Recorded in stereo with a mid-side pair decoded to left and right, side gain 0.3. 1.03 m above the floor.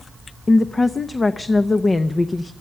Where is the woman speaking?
40° left, 0.7 m.